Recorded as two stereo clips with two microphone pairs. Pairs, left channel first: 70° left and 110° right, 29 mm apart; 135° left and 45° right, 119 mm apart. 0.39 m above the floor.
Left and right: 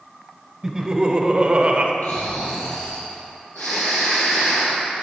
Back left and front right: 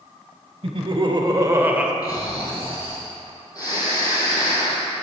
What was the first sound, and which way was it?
Laughter, 40° right.